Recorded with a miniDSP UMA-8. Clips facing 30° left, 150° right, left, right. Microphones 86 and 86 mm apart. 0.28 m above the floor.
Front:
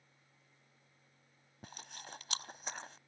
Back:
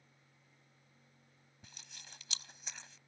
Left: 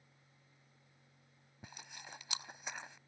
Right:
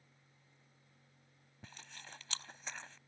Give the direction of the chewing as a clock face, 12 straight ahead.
11 o'clock.